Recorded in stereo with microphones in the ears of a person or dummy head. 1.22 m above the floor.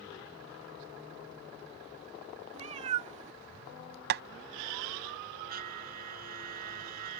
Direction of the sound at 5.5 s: 45° right (ahead or behind).